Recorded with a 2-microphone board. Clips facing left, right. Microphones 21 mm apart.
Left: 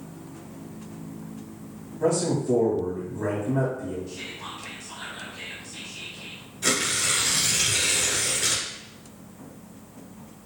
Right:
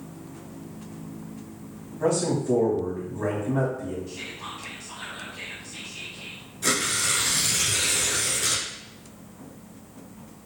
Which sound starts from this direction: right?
A man speaking, at 2.0 s.